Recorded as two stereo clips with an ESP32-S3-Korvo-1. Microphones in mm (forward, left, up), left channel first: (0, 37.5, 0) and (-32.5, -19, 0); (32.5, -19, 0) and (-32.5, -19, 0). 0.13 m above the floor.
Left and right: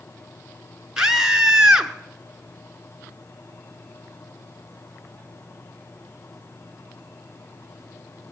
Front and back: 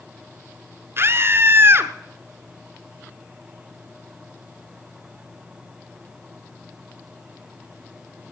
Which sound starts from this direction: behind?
A scream, at 1.0 s.